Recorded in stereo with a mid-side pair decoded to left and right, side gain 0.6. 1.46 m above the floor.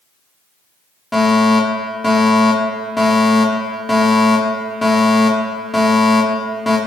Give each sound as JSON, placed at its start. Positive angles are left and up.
{"t": 1.1, "sound": "a fire alarm", "azimuth_deg": 5, "distance_m": 5.5}